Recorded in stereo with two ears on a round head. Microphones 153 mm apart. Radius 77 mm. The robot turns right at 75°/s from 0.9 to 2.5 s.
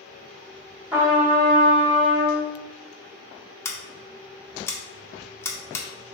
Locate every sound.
0.9 s a trumpet: 170° right, 1.1 m; by 2.5 s 55° right, 1.1 m
3.6 s scissors: 15° left (ahead or behind), 0.6 m